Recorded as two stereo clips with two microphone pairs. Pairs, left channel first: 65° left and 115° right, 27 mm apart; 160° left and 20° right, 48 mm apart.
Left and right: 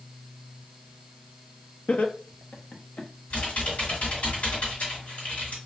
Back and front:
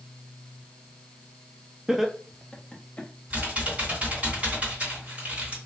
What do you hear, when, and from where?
1.9 s laughter: 55° left, 0.6 m; by 3.1 s 95° left, 1.1 m
3.3 s typing on a keyboard: 40° left, 1.9 m